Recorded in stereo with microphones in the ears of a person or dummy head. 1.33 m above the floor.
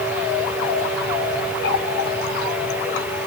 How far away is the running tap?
About 2.5 m.